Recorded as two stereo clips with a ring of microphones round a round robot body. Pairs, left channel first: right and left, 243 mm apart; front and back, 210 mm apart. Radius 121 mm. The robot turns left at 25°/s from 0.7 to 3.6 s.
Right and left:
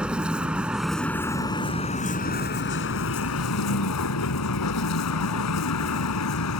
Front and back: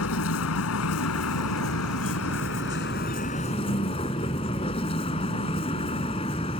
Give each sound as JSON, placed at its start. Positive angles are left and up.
{"t": 0.0, "sound": "a vehicle", "azimuth_deg": 5}